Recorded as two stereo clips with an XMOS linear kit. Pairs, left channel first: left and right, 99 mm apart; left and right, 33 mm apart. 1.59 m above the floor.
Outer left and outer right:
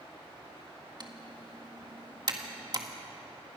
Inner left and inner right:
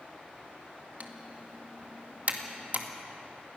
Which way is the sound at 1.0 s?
45° right (ahead or behind).